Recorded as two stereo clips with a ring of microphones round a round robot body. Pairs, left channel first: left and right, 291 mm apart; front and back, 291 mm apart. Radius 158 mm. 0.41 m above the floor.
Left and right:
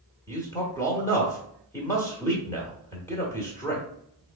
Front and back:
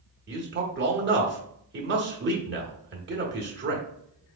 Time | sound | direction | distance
0.3 | a man speaking | 165° left | 1.0 m